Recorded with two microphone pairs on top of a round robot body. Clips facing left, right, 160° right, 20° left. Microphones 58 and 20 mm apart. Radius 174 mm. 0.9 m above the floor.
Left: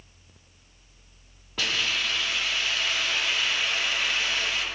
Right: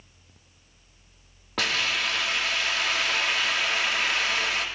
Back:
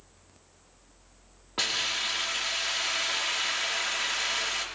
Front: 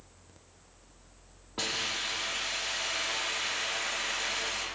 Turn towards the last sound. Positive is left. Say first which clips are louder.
# right 1 dB, back 4 dB
turn(degrees=-100)